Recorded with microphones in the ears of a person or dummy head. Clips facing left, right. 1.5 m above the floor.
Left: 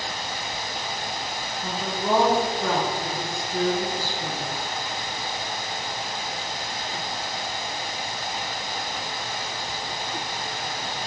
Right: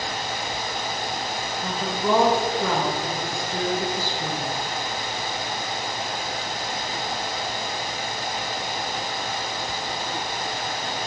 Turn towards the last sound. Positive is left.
turn(degrees=-60)  # may be behind; listen again after turning